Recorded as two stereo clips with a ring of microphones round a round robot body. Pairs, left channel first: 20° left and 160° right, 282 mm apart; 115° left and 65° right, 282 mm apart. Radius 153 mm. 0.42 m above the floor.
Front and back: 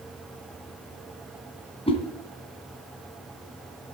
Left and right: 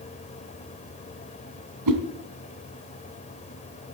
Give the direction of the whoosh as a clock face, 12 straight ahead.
2 o'clock.